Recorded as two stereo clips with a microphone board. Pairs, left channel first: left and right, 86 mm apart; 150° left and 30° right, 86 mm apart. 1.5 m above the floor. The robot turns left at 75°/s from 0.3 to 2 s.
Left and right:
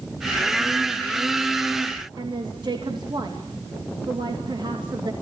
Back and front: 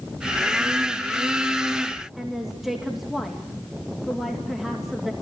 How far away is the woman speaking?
About 2.5 m.